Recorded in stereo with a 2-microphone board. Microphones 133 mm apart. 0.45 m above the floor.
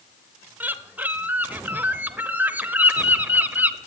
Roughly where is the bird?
Centre.